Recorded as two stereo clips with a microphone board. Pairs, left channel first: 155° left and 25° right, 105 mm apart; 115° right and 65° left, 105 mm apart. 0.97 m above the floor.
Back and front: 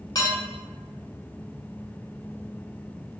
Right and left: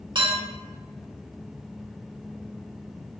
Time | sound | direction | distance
0.1 | dishes clattering | 105° left | 1.3 m